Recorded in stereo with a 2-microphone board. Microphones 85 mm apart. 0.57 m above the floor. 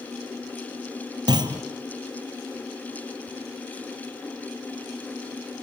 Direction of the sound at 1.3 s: 55° right (ahead or behind).